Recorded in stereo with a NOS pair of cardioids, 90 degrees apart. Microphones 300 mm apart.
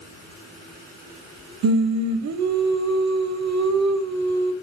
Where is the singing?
65° right, 1.3 m.